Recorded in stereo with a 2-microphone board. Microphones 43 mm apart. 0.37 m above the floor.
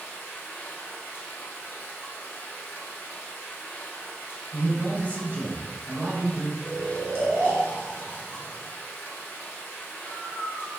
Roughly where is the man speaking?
Right.